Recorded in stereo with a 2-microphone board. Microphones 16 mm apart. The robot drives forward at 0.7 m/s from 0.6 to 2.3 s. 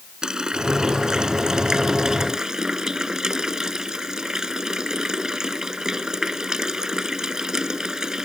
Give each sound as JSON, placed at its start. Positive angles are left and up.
{"t": 0.2, "sound": "a running tap", "side_deg": -45}